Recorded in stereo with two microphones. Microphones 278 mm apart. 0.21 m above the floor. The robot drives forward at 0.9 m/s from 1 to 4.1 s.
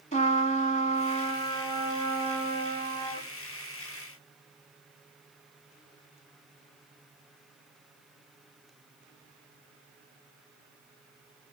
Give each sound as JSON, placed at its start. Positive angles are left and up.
{"t": 0.1, "sound": "a trumpet", "side_deg": 25, "distance_m": 0.8}